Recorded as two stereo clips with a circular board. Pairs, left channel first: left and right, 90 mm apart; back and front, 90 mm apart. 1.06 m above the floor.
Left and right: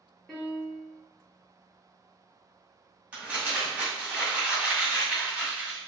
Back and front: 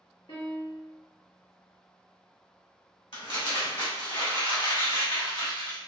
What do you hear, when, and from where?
0.3 s a piano: 170° left, 1.1 m
3.1 s crumpling: 165° right, 1.5 m